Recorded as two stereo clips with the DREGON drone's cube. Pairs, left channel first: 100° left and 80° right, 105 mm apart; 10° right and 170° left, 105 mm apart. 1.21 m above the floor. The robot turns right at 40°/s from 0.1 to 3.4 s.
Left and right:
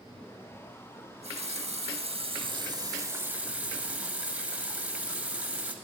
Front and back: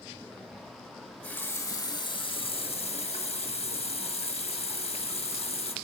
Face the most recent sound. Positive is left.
turn(degrees=0)